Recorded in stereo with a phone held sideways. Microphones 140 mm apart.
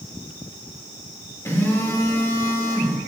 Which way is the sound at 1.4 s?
20° left (ahead or behind).